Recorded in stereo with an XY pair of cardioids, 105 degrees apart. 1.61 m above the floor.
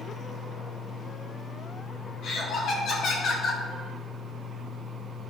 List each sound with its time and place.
0.0 s a fan: 25° right, 2 m
2.2 s laughter: 65° left, 1.0 m